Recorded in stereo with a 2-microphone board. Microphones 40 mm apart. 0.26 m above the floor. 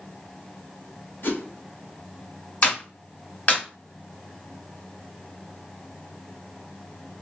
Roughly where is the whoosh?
Left.